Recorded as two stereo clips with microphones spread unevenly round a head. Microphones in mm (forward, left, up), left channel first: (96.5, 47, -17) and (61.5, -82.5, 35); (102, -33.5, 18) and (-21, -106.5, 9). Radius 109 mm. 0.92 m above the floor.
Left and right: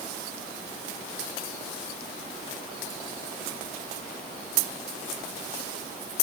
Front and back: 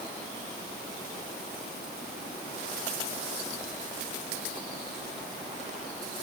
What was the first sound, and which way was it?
Only background noise.